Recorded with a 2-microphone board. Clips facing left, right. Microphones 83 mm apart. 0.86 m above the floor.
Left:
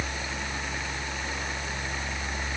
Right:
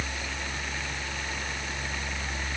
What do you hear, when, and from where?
Only background noise.